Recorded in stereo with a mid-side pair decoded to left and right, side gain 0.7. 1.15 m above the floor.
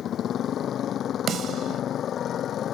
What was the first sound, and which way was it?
A motorcycle, 40° left.